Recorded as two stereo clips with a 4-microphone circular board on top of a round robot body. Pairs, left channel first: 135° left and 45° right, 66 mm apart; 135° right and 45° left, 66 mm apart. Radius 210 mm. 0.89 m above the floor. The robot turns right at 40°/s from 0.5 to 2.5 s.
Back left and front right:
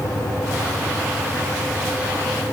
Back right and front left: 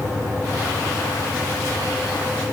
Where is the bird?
No bird in this recording.